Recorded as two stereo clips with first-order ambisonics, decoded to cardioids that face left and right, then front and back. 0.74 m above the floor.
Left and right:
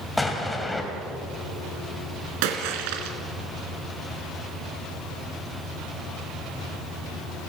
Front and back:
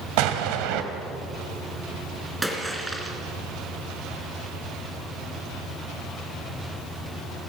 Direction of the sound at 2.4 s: 95° right.